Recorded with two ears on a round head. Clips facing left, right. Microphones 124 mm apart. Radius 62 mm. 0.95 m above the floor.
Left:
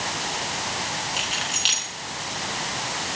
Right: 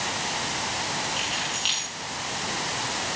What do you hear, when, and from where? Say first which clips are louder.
1.2 s keys jangling: left 1 dB; 55° left (ahead or behind), 8.5 m